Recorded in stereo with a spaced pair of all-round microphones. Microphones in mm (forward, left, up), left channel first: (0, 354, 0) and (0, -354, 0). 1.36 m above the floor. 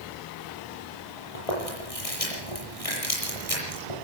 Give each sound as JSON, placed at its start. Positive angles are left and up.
{"t": 1.4, "sound": "chewing", "side_deg": 50, "distance_m": 8.0}